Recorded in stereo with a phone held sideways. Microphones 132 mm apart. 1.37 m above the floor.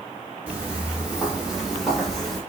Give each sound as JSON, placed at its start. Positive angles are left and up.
{"t": 0.5, "sound": "footsteps", "side_deg": -15, "distance_m": 1.5}